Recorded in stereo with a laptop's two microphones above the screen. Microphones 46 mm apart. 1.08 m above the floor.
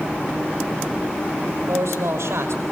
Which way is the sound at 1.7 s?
80° right.